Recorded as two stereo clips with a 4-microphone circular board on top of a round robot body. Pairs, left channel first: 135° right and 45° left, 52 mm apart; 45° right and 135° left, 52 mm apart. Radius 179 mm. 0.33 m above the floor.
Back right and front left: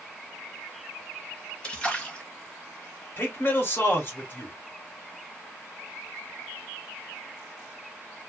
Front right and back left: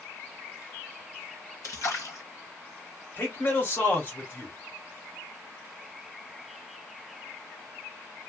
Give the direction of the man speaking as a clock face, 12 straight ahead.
3 o'clock.